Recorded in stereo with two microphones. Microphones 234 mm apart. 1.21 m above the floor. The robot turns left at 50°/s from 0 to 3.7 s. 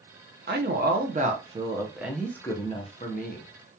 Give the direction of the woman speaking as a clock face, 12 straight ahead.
3 o'clock.